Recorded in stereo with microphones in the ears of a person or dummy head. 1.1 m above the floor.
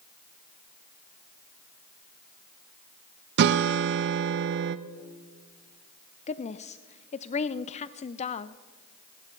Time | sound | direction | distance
3.4 | a guitar | 60° right (ahead or behind) | 0.5 m
6.3 | a woman speaking | 35° left (ahead or behind) | 0.6 m